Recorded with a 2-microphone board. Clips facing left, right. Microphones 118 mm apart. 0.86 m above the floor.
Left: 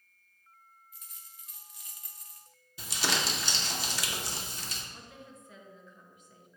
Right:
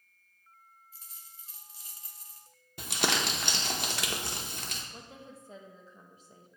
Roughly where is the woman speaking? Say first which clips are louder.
Right 2 dB; right.